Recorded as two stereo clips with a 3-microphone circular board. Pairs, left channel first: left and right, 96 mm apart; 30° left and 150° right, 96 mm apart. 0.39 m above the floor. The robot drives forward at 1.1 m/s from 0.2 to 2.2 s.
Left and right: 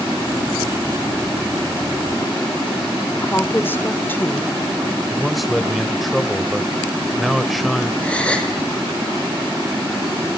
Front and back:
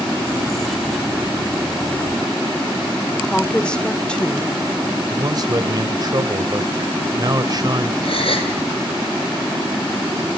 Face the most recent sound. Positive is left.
turn(degrees=10)